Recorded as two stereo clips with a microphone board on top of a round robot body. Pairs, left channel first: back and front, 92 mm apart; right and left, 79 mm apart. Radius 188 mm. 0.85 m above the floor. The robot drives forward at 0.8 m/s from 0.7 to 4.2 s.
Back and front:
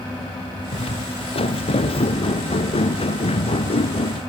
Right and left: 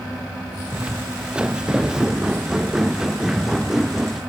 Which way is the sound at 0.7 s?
165° left.